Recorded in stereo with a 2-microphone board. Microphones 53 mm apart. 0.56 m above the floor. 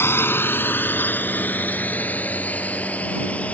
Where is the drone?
45° left (ahead or behind); by 3.5 s 25° left (ahead or behind).